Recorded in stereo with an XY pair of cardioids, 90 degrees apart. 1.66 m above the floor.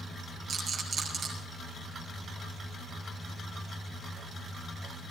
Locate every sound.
0.5 s a rattle: 60° right, 6.5 m